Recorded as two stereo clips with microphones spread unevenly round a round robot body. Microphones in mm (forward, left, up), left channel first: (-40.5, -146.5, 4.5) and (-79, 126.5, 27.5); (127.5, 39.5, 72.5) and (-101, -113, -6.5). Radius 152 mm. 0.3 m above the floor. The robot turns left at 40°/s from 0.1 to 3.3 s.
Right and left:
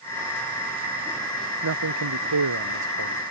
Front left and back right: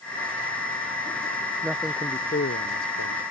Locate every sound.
1.6 s a man speaking: 130° left; by 3.2 s 65° left